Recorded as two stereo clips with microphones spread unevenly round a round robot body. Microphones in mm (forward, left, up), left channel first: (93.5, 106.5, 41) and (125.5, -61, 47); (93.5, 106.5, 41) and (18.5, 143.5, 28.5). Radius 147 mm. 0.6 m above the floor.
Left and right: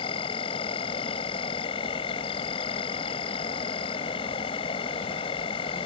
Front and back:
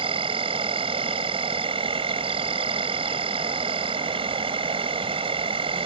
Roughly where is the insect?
Behind.